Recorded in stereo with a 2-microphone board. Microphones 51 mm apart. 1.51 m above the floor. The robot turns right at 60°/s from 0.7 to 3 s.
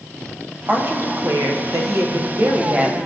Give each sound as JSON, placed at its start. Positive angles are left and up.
{"t": 0.7, "sound": "a woman speaking", "azimuth_deg": -150, "distance_m": 1.0}